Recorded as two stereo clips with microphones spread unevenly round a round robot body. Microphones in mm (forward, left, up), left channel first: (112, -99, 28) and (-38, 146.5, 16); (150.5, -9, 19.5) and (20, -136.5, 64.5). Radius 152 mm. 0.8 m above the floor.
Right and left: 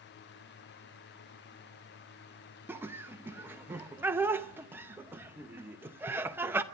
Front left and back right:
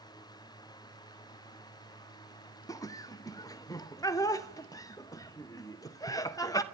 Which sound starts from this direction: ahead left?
Laughter, at 2.7 s.